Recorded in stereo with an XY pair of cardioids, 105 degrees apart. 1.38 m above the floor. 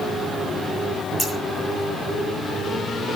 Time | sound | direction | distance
1.2 | scissors | 5° left | 8.5 m